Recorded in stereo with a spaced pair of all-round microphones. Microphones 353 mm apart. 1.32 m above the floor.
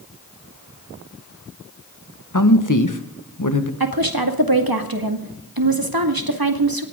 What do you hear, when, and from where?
2.3 s a man speaking: 60° left (ahead or behind), 1.6 m
3.8 s a woman speaking: 80° right, 2 m